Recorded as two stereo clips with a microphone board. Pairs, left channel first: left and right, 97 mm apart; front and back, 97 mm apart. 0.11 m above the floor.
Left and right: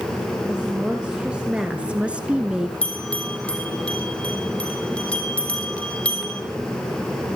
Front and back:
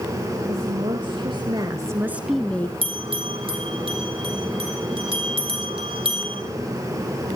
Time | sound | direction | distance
0.5 | a woman speaking | 170° right | 3 m
2.8 | a bell | 165° left | 4 m